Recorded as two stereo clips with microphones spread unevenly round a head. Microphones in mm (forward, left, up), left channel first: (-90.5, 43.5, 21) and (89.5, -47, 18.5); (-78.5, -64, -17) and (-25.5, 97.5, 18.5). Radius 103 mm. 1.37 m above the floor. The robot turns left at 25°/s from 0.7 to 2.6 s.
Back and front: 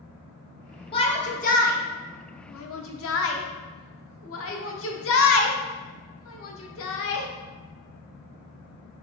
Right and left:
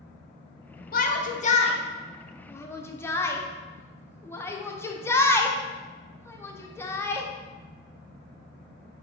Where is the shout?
140° right, 0.7 m; by 7.3 s straight behind, 0.7 m.